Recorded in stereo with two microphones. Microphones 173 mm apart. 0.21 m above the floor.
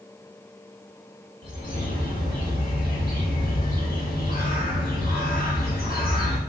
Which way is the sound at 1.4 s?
65° left (ahead or behind).